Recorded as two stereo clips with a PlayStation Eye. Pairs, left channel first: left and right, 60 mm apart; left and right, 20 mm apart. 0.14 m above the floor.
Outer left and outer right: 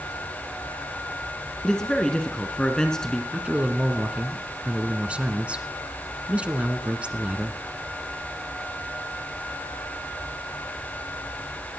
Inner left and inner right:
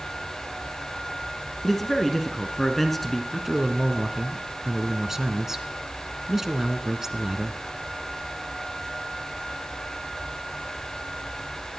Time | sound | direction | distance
1.6 | a man speaking | 10° left (ahead or behind) | 1.7 m
3.3 | a man speaking | 20° right (ahead or behind) | 1.5 m